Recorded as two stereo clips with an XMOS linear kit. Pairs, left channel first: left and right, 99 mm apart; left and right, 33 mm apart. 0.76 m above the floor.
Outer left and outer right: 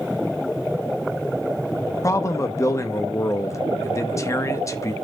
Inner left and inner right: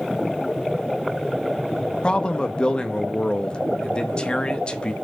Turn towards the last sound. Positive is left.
turn(degrees=30)  # may be behind; listen again after turning